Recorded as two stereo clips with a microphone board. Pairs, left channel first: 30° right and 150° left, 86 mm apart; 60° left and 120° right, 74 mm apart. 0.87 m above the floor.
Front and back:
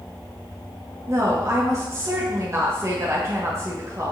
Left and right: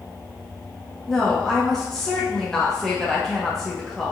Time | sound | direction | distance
1.1 | a woman speaking | 135° left | 0.8 m